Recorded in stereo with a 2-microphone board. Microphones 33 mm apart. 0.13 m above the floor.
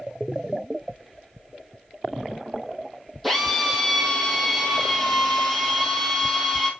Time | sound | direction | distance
3.2 | a drill | 5° left (ahead or behind) | 2.5 m